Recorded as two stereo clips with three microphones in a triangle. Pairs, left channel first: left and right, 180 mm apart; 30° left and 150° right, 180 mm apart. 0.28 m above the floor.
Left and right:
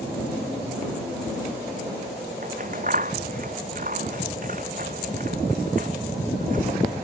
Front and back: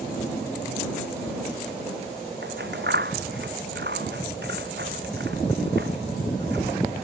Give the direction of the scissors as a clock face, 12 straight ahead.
4 o'clock.